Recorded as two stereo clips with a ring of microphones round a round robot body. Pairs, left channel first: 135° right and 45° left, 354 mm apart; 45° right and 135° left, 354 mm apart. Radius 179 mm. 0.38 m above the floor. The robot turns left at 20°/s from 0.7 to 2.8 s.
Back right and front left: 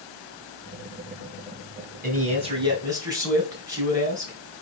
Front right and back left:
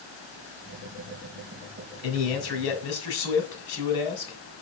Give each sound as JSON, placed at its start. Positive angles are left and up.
{"t": 2.0, "sound": "a man speaking", "azimuth_deg": -20, "distance_m": 3.0}